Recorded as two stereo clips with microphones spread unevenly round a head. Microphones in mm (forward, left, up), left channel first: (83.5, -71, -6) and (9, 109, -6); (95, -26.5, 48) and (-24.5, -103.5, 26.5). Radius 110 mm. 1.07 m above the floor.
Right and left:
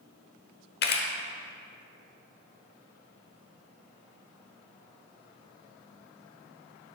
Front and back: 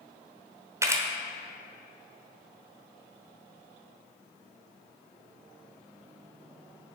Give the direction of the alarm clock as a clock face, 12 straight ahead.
No alarm clock in this recording.